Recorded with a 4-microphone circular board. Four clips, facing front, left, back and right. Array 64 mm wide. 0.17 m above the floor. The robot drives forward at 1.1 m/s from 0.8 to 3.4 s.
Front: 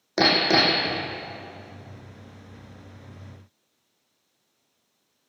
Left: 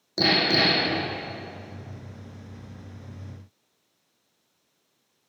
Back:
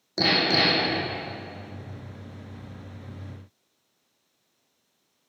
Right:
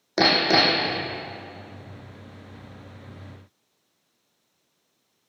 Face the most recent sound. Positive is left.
turn(degrees=-85)